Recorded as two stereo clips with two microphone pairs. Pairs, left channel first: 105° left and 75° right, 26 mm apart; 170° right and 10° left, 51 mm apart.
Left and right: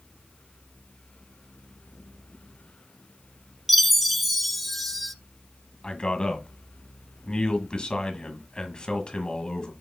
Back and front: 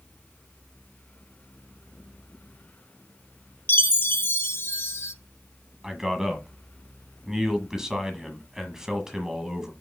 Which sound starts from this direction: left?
A man speaking, at 5.8 s.